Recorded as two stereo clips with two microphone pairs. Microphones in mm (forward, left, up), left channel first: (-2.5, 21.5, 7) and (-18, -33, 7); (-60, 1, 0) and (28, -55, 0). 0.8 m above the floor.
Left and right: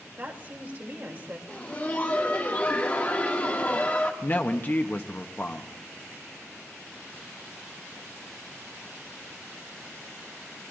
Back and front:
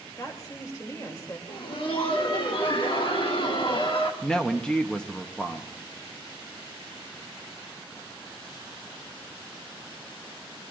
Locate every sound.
0.2 s a woman speaking: 155° right, 2.5 m
1.5 s laughter: 130° left, 1.8 m
4.2 s a woman speaking: 75° left, 0.8 m